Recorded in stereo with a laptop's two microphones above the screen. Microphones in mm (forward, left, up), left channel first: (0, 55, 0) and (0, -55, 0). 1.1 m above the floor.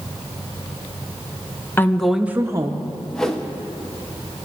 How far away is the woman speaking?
About 0.5 m.